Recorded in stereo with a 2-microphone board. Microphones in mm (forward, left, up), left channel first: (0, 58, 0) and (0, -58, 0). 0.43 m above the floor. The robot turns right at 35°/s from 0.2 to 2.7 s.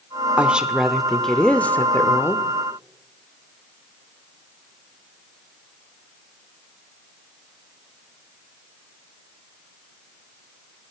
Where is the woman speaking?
20° right, 0.8 m; by 2.5 s 50° left, 0.8 m.